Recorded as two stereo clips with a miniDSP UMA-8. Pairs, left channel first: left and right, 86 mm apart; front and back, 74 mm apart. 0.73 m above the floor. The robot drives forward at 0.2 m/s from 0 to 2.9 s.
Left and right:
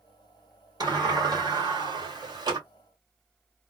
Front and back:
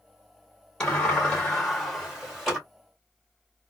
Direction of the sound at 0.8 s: 75° right.